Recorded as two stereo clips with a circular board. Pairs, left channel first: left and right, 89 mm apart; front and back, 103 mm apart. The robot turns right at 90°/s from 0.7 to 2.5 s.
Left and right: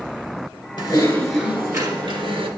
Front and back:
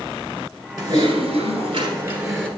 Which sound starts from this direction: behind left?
Typing on a keyboard, at 0.8 s.